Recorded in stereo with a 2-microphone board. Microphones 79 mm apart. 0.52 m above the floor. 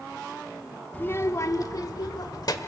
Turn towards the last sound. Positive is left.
turn(degrees=55)  # may be behind; listen again after turning